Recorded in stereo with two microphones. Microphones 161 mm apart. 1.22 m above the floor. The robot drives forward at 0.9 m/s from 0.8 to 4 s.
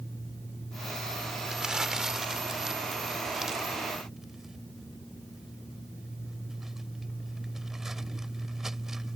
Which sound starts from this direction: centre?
Crumpling, at 1.5 s.